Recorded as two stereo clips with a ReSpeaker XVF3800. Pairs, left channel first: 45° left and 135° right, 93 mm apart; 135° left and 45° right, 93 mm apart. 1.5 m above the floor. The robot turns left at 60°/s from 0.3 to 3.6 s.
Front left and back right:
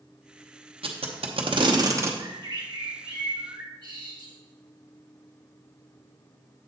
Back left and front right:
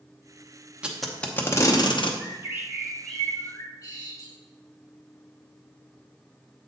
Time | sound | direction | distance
0.8 | tape being pulled | 120° right | 0.8 m
2.2 | a bird | 85° right | 1.9 m